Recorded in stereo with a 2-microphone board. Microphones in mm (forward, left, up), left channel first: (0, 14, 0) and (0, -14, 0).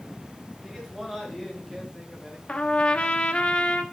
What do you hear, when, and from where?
0.6 s a man speaking: 10° left (ahead or behind), 5 m; by 2.4 s 15° left (ahead or behind), 3.5 m
2.5 s a trumpet: 40° left (ahead or behind), 1.3 m